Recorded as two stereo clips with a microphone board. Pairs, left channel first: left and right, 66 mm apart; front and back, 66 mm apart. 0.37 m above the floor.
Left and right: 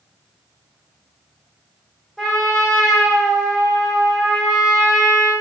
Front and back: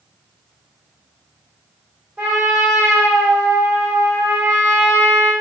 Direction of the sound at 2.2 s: 165° right.